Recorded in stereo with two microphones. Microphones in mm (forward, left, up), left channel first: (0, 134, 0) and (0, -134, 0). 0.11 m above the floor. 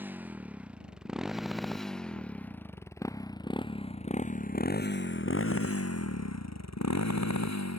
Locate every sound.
0.0 s a motorcycle: 5° right (ahead or behind); by 7.8 s 75° left (ahead or behind)